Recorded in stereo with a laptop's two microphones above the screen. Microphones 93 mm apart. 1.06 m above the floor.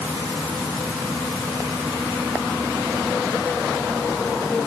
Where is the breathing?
I don't hear breathing.